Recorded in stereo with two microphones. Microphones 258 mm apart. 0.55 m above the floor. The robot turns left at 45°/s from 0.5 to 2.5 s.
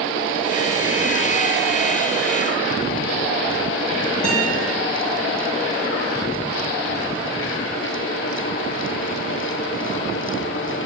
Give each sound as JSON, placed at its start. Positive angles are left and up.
{"t": 4.2, "sound": "a guitar", "side_deg": 5, "distance_m": 2.5}